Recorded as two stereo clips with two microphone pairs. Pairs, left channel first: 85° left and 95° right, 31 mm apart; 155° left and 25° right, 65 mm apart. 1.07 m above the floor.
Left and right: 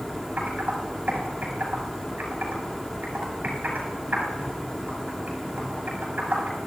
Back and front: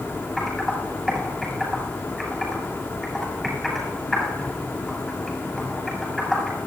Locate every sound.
0.4 s typing on a keyboard: 120° right, 7 m